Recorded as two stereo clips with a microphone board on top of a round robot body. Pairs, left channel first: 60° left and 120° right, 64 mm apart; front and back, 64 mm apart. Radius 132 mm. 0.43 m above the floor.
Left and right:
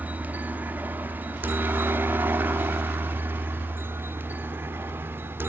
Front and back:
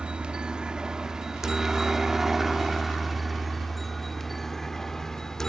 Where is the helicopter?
125° right; by 5.5 s 80° right.